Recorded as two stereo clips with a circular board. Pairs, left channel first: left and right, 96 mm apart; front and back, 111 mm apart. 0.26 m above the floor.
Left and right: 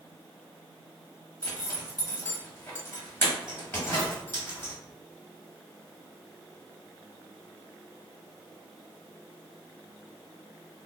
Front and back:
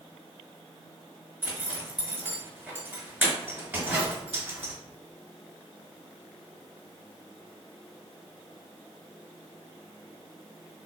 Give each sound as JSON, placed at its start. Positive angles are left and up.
{"t": 1.4, "sound": "a zipper", "azimuth_deg": 130, "distance_m": 1.3}